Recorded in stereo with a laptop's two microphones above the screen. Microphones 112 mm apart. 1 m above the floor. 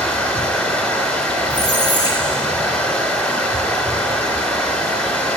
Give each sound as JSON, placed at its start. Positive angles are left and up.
{"t": 0.0, "sound": "running water", "side_deg": 10, "distance_m": 3.0}
{"t": 1.5, "sound": "a squeak", "side_deg": 35, "distance_m": 2.5}